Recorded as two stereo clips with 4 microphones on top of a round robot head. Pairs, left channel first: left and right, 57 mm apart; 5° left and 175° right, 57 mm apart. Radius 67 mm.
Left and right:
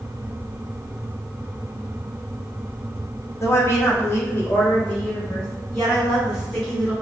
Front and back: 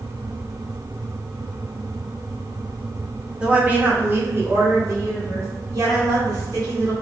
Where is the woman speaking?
110° left, 1.1 m; by 6.9 s 175° left, 2.5 m.